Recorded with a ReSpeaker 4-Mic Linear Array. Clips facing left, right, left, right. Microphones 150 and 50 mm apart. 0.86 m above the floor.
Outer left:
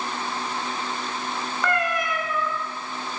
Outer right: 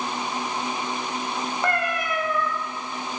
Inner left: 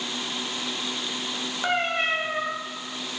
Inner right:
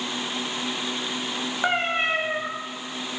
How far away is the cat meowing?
About 0.5 m.